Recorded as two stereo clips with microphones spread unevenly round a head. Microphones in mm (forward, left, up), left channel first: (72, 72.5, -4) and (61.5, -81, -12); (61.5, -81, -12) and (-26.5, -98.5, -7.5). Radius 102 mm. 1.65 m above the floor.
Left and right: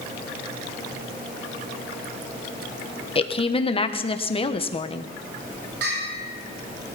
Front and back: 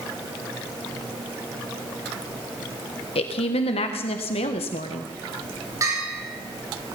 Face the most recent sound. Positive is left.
turn(degrees=-120)